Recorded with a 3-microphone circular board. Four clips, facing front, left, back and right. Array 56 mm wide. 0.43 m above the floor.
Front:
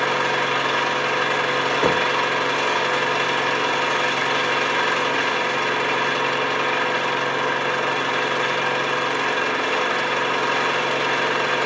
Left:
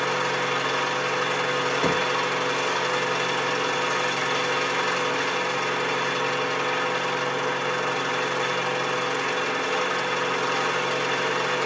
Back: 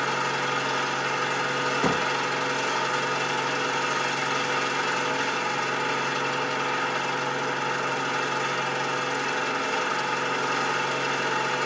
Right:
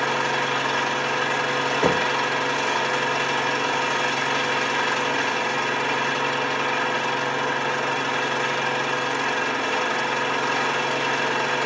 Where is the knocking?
20° right, 1.3 m.